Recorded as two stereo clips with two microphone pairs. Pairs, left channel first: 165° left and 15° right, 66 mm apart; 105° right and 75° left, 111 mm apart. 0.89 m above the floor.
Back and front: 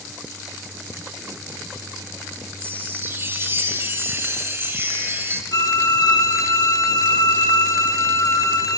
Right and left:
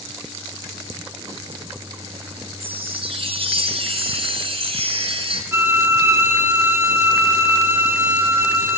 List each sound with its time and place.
2.6 s a chime: 45° left, 2.5 m
5.5 s a violin: 145° left, 2.5 m